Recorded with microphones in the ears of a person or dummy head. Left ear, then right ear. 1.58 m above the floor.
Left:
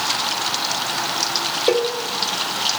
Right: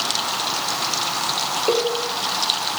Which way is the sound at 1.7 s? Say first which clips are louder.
Left 2 dB; 65° left (ahead or behind).